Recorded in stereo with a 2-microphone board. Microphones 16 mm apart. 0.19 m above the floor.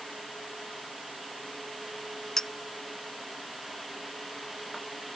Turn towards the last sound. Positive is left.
turn(degrees=40)  # may be behind; listen again after turning